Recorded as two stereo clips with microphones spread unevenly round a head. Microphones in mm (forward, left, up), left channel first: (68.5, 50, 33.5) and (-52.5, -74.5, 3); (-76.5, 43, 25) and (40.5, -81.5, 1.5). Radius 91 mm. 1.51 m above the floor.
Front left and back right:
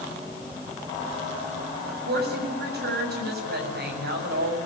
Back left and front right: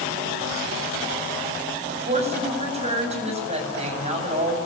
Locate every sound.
1.9 s a woman speaking: 100° right, 7.5 m